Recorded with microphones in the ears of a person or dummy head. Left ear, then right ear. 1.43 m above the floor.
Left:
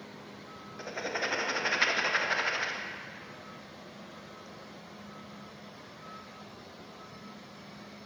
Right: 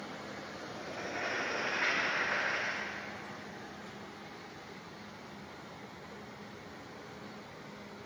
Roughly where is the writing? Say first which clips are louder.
Left 5 dB; left.